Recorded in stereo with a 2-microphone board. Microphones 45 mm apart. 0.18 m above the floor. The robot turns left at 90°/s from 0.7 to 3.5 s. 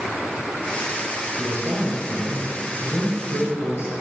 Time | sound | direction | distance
1.4 | a man speaking | 85° right | 3.5 m